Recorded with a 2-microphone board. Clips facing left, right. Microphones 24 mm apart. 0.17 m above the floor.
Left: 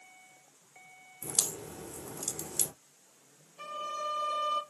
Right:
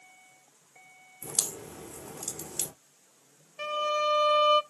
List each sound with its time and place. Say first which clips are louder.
1.2 s a crack: even; 15° right (ahead or behind), 2.5 m
3.6 s a violin: right 9 dB; 55° right (ahead or behind), 0.6 m